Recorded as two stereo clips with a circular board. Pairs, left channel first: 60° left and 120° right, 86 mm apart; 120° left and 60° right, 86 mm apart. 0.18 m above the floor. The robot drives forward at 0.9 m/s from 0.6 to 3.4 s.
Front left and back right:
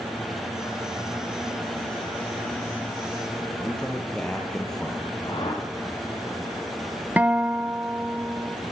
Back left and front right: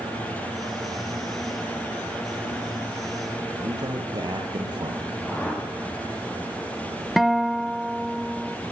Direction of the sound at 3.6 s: 20° right.